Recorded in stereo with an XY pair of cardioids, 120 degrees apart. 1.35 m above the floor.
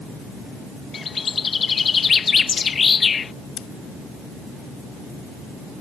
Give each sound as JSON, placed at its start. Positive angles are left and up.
{"t": 0.9, "sound": "a bird", "azimuth_deg": 35}
{"t": 3.6, "sound": "scissors", "azimuth_deg": 70}